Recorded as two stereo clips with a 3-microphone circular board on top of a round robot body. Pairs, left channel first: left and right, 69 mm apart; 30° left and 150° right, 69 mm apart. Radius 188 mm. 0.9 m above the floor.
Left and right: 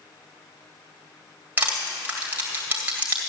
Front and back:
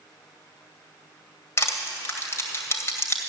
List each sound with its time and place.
1.6 s crushing: 20° right, 1.7 m